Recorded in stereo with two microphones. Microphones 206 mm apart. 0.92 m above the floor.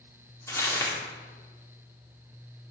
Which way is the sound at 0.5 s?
15° left (ahead or behind).